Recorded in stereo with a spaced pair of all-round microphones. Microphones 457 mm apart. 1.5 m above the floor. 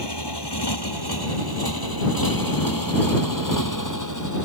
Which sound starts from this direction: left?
A motorcycle, at 0.0 s.